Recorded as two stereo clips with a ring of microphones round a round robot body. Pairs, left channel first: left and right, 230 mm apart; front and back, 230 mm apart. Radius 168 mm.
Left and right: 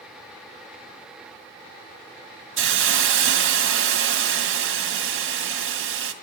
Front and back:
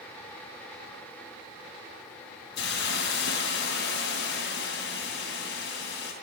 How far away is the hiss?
About 2 m.